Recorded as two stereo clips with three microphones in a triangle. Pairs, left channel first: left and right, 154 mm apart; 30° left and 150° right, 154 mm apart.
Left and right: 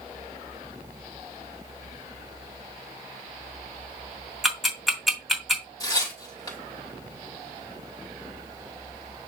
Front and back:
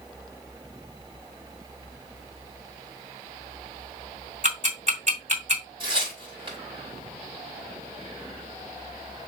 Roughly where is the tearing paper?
Behind left.